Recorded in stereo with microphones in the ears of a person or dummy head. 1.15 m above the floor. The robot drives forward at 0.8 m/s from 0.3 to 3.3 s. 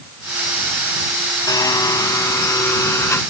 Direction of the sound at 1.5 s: 20° left (ahead or behind).